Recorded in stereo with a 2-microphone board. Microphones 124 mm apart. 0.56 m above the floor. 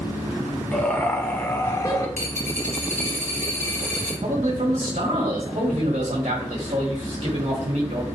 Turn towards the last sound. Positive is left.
turn(degrees=-75)  # may be behind; listen again after turning